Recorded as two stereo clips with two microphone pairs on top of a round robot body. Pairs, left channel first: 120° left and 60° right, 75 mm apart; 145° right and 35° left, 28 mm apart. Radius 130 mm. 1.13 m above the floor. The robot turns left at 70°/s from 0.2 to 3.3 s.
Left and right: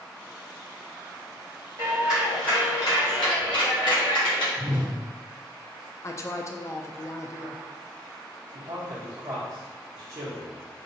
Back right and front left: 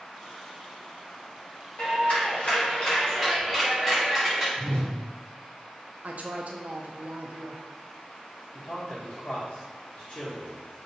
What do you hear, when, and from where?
1.8 s a clap: 125° right, 1.4 m; by 4.5 s 130° left, 1.4 m
4.6 s a whoosh: 95° right, 1.3 m
6.0 s a woman speaking: 65° left, 0.5 m
8.5 s a man speaking: 100° right, 1.2 m